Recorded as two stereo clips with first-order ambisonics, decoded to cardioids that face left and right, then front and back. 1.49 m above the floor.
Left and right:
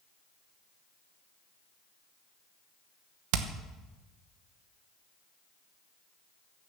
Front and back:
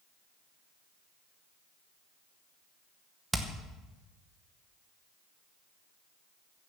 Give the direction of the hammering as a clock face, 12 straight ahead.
3 o'clock.